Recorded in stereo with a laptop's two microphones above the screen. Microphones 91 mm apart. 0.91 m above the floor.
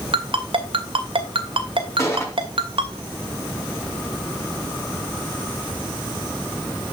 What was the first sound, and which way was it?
A ringtone, 75° right (ahead or behind).